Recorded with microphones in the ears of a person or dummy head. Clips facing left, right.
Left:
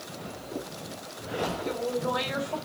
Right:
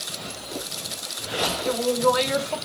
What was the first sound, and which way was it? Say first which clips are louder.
A woman speaking: right 11 dB; 85° right.